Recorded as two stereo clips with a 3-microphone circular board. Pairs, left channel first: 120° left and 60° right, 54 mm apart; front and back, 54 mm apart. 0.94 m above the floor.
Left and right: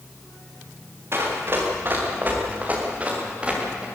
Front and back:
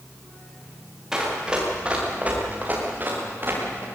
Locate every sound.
1.1 s running footsteps: 100° right, 6.5 m; by 3.9 s 135° right, 7.5 m